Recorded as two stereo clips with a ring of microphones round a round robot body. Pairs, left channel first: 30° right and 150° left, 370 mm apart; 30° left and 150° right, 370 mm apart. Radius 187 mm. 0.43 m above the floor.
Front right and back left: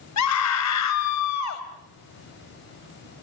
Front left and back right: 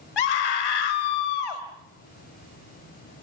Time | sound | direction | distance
0.2 | a scream | 15° left | 1.9 m